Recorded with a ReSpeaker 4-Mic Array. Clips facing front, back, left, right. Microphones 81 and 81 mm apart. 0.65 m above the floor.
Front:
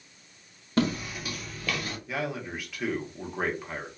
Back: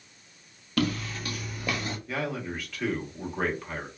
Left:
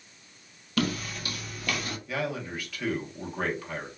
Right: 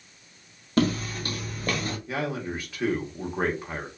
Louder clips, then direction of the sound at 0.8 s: Front 1 dB, right 5 dB; 50° right.